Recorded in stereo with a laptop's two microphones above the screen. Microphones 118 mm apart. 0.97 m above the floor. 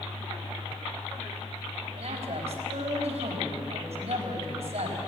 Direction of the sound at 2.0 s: 60° right (ahead or behind).